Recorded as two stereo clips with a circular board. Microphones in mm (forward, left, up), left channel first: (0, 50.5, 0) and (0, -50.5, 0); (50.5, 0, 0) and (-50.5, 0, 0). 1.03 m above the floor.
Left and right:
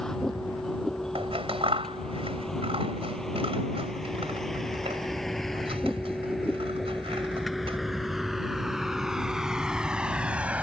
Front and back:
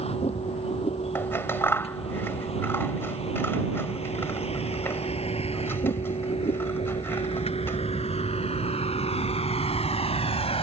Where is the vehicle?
5° left; by 10.6 s 15° right.